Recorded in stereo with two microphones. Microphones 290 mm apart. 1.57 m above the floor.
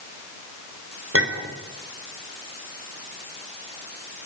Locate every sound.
1.1 s a clink: 50° right (ahead or behind), 4.5 m